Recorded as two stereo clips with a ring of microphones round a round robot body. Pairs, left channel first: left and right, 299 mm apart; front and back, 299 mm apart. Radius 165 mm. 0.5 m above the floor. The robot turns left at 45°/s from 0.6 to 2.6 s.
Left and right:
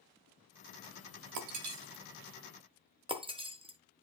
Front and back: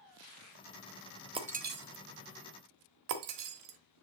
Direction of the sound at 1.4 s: 105° right.